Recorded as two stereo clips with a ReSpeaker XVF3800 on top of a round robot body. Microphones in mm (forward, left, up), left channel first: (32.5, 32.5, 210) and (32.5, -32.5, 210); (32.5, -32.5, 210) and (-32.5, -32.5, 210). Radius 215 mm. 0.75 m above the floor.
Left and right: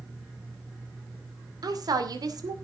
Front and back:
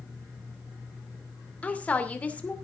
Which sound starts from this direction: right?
A woman speaking, at 1.6 s.